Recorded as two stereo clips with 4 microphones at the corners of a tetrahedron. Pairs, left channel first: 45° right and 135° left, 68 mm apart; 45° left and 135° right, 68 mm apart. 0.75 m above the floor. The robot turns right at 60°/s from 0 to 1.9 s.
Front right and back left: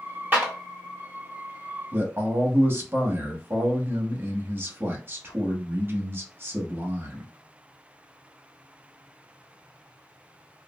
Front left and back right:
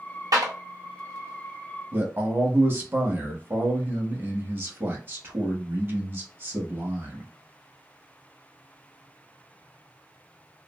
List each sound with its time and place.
0.3 s a clap: 160° right, 1.2 m; by 0.5 s 145° right, 1.2 m
1.9 s a man speaking: 175° left, 0.9 m